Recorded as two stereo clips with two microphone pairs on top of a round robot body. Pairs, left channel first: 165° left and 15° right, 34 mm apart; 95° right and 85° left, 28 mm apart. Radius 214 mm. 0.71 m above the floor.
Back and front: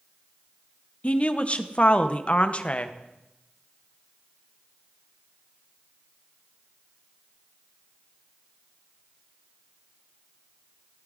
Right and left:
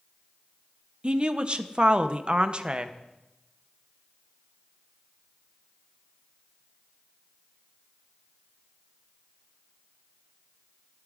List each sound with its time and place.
1.0 s a woman speaking: 115° left, 0.9 m